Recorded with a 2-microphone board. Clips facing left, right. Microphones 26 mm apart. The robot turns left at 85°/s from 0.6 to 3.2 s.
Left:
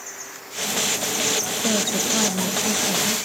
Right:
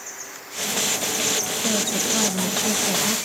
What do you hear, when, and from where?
1.6 s a woman speaking: 20° left (ahead or behind), 0.9 m; by 3.2 s 15° right (ahead or behind), 0.9 m